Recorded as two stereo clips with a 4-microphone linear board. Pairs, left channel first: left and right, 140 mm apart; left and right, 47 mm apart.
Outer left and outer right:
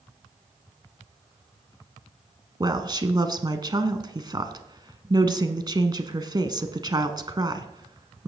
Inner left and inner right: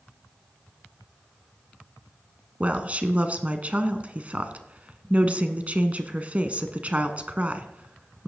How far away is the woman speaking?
About 1.2 m.